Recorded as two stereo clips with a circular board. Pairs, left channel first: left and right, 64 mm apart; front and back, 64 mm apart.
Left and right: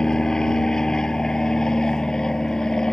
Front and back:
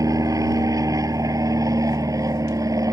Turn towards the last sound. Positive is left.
turn(degrees=170)